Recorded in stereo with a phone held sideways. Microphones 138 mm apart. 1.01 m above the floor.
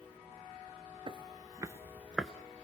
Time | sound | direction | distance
1.1 | footsteps | 35° right (ahead or behind) | 1.1 m